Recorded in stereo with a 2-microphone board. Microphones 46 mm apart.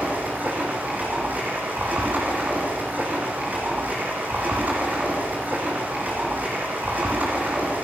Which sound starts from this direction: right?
Running water, at 0.0 s.